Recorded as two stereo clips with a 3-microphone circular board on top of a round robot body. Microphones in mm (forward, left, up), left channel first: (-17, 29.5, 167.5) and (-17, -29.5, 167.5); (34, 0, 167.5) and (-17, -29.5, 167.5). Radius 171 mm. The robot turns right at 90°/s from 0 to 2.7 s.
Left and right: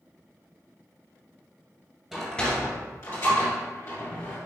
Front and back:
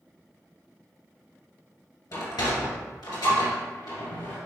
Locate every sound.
2.1 s a sliding door: 5° right, 1.9 m; by 4.4 s 50° left, 1.9 m